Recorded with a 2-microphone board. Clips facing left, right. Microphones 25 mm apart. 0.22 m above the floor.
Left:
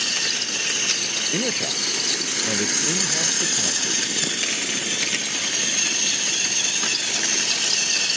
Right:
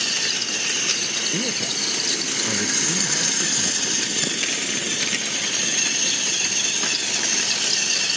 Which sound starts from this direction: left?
A man speaking, at 1.3 s.